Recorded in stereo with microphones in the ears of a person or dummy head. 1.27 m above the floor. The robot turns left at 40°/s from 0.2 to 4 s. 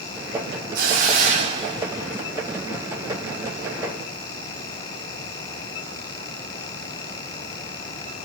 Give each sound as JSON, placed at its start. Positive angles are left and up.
{"t": 0.8, "sound": "a hiss", "azimuth_deg": -125, "distance_m": 1.0}